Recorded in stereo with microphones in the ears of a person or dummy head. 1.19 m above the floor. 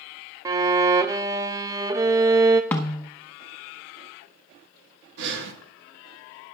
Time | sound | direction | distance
0.5 | a violin | 15° right (ahead or behind) | 0.5 m
2.7 | a snare drum | 15° left (ahead or behind) | 0.8 m
5.2 | breathing | 65° right (ahead or behind) | 1.4 m